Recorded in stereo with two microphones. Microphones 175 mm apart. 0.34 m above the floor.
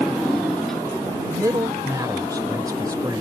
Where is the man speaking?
20° right (ahead or behind).